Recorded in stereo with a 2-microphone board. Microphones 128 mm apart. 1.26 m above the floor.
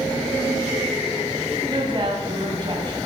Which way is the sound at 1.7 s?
35° right (ahead or behind).